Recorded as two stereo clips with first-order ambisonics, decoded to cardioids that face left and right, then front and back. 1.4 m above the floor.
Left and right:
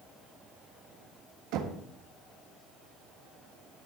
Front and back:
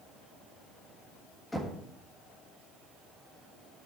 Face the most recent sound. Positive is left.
turn(degrees=-85)